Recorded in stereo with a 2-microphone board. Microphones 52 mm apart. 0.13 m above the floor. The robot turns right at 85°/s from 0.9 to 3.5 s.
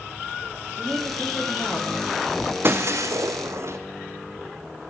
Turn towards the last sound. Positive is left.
turn(degrees=-60)